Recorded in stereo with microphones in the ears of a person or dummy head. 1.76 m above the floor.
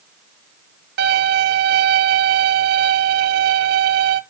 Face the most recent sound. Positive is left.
turn(degrees=-60)  # may be behind; listen again after turning